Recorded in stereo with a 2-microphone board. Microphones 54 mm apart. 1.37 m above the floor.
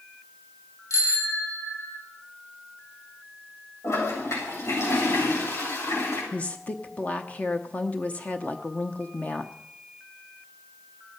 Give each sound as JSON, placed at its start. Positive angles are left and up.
{"t": 0.9, "sound": "a bicycle bell", "side_deg": 80, "distance_m": 3.0}
{"t": 3.8, "sound": "a toilet flushing", "side_deg": 65, "distance_m": 8.0}
{"t": 6.3, "sound": "a woman speaking", "side_deg": 25, "distance_m": 1.0}